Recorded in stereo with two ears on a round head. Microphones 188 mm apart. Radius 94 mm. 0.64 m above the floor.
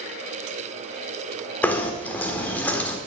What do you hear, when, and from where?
1.6 s knocking: 5° left (ahead or behind), 1.2 m